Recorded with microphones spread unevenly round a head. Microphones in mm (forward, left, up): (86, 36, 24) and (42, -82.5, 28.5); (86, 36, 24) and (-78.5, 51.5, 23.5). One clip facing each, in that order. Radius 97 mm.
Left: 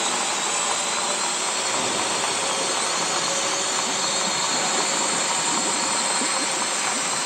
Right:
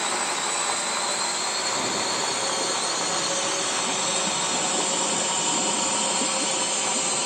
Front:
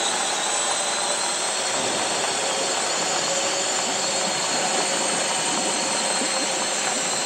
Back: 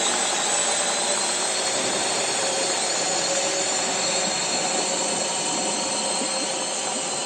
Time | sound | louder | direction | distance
0.0 | a drone | left 2 dB, even | 125° left | ?